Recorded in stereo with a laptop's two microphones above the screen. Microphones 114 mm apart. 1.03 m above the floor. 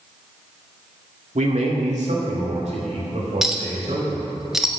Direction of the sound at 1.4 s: 80° right.